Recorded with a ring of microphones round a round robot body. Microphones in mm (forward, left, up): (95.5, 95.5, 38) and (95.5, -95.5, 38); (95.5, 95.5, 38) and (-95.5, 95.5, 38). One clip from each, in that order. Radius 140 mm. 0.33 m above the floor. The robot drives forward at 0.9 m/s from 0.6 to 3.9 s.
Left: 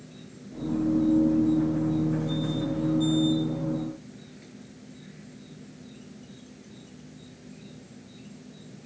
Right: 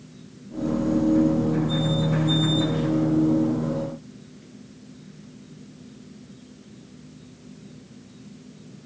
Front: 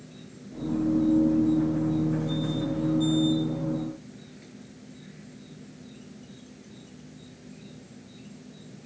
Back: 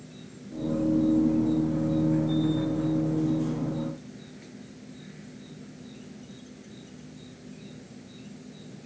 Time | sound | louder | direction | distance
0.0 | an insect | even, back 1 dB | 90° left | ?